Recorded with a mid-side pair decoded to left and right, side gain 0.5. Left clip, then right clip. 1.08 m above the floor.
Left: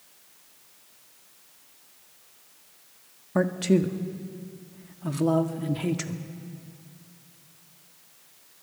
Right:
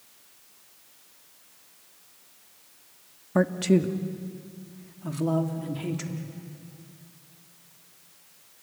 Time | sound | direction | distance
3.4 | a man speaking | 10° right | 1.7 m